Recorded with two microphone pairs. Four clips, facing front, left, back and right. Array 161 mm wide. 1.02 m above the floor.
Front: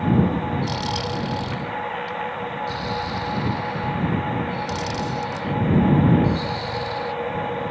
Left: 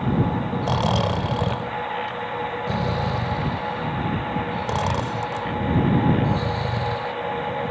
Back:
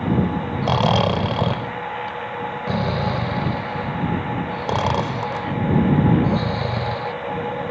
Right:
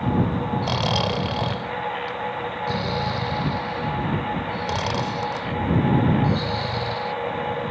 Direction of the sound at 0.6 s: 175° left.